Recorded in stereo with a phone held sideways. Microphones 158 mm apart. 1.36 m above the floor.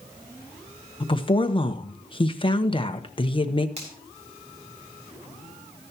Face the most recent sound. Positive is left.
turn(degrees=-45)  # may be behind; listen again after turning